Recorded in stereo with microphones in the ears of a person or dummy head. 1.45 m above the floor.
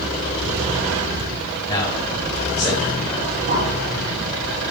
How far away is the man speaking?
About 8 m.